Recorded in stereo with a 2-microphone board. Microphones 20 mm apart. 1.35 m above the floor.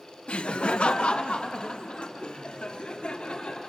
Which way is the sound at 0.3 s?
70° left (ahead or behind).